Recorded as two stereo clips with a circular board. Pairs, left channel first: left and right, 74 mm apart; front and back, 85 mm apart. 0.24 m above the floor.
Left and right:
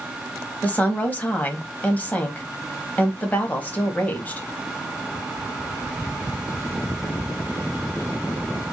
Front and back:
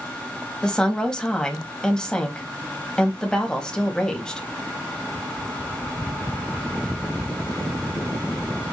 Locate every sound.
0.6 s a woman speaking: 70° left, 1.0 m